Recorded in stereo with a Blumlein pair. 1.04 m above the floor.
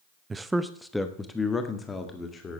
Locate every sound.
0.3 s a man speaking: 15° right, 0.7 m; by 2.6 s 15° left, 2 m